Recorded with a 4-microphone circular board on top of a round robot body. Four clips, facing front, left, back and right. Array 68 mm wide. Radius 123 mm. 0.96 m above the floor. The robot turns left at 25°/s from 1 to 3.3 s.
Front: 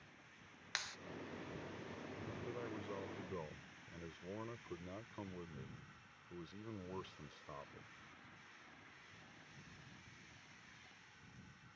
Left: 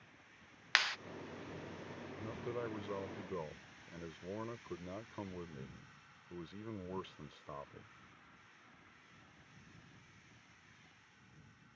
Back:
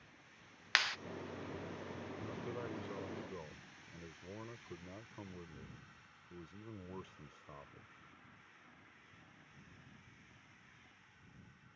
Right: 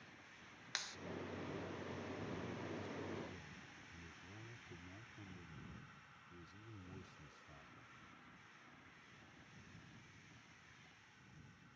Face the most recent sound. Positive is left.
turn(degrees=80)